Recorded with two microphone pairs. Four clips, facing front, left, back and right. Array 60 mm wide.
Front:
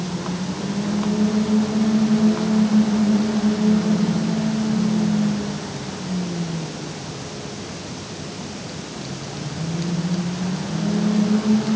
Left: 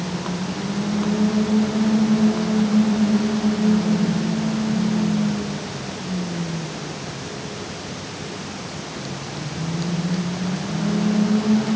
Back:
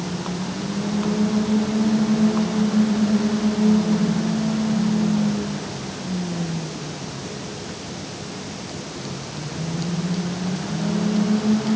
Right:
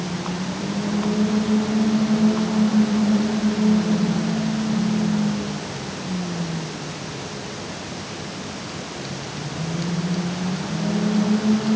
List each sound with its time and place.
Only background noise.